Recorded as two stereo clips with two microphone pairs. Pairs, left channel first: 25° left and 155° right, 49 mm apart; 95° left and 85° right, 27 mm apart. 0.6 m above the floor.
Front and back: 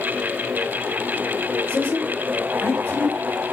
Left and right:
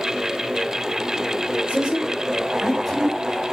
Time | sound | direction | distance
1.7 | a woman speaking | 35° right | 2.5 m